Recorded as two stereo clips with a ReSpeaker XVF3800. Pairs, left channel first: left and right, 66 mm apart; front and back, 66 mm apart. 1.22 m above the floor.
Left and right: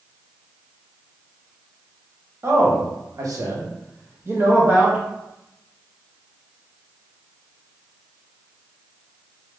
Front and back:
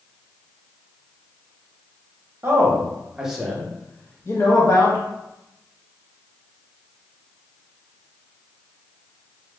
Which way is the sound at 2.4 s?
130° right.